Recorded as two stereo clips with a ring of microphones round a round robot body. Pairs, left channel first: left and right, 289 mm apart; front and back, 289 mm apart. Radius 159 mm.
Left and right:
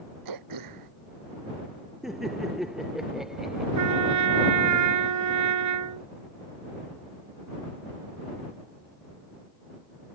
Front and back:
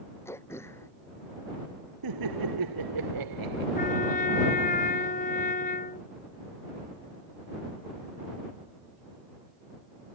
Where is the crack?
I don't hear a crack.